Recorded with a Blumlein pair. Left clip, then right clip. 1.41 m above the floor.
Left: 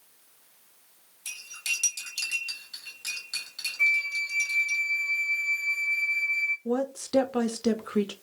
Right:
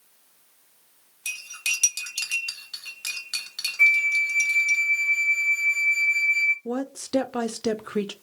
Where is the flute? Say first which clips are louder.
Right 6 dB; 35° right, 0.9 m.